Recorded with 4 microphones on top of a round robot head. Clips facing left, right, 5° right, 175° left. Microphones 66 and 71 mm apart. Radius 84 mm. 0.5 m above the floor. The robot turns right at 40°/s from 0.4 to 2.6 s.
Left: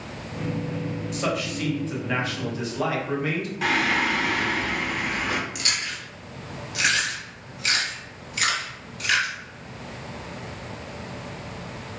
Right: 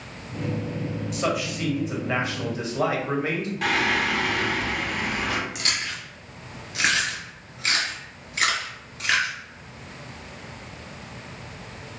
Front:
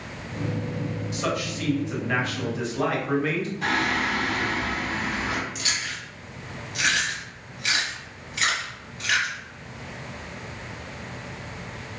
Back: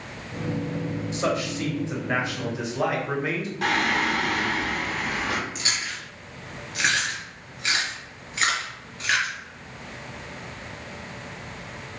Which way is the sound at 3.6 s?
175° left.